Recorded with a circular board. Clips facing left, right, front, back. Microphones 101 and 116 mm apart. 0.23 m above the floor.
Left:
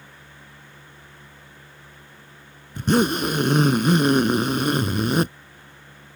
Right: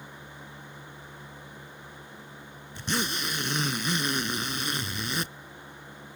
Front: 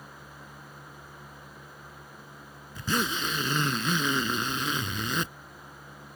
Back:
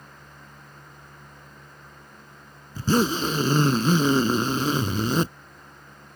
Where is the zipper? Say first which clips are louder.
Left 12 dB, back 8 dB; 130° left.